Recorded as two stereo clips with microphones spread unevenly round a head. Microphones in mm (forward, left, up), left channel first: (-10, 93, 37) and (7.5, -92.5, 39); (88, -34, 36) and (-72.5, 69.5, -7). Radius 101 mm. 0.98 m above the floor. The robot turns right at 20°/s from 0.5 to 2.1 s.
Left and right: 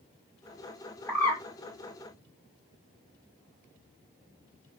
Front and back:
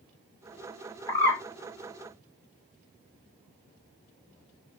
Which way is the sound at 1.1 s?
20° left.